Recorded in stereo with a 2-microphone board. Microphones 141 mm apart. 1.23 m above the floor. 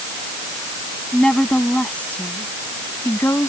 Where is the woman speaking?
5° left (ahead or behind); by 3.5 s 20° left (ahead or behind).